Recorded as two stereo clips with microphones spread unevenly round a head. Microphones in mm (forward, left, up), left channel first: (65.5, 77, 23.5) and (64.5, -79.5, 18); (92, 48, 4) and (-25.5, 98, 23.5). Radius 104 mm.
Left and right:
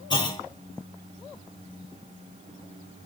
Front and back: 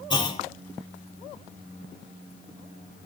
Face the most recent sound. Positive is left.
turn(degrees=30)